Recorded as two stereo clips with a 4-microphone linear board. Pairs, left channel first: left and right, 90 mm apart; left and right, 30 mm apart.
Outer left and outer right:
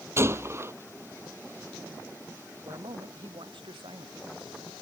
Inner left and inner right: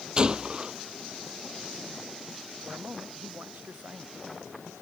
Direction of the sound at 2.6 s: 65° right (ahead or behind).